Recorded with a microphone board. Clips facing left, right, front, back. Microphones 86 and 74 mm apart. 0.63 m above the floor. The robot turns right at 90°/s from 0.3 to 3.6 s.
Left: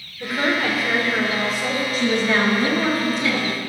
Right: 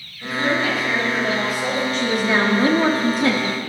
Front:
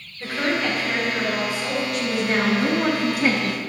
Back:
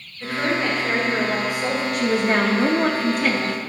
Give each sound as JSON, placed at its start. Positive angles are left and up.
{"t": 0.2, "sound": "a woman speaking", "azimuth_deg": 80, "distance_m": 2.5}
{"t": 1.9, "sound": "a woman speaking", "azimuth_deg": 165, "distance_m": 0.8}